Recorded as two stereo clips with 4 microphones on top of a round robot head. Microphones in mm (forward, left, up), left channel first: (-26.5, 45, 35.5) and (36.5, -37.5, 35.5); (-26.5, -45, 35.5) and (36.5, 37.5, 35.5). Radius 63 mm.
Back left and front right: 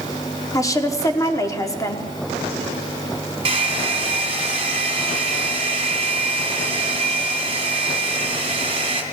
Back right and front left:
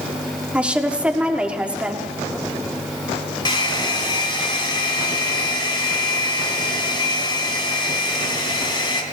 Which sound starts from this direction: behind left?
A woman speaking, at 0.5 s.